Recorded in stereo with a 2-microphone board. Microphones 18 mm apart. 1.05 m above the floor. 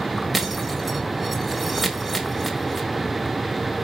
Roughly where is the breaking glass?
Centre.